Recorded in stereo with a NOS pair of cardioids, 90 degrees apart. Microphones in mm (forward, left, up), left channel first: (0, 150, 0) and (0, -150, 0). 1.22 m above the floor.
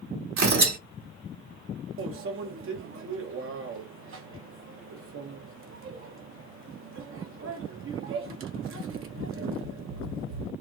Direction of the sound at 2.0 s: 45° right.